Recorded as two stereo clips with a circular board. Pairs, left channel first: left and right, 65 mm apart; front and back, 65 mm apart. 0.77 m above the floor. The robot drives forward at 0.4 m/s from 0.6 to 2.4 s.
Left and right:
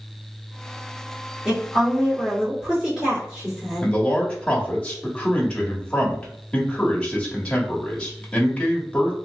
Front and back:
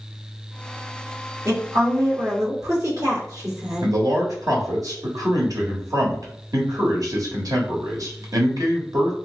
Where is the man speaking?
165° left, 1.2 m.